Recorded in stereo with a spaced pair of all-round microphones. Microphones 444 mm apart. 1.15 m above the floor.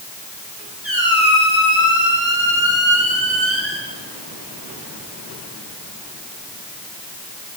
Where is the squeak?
85° right, 7 m.